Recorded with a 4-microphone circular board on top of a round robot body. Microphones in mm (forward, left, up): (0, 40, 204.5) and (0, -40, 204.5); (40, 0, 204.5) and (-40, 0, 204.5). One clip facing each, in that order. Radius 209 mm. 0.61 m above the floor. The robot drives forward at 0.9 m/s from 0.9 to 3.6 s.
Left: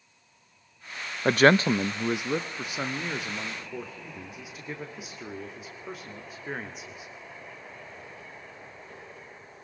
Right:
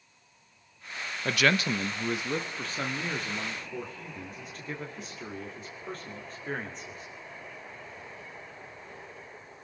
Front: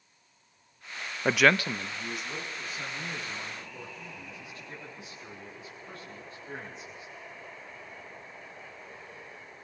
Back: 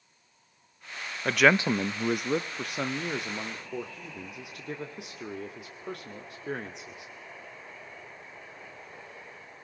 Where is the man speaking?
60° left, 0.6 m; by 7.1 s 170° left, 2 m.